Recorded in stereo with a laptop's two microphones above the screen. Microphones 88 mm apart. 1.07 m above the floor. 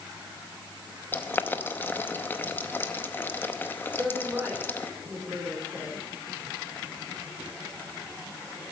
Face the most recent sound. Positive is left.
turn(degrees=-15)  # may be behind; listen again after turning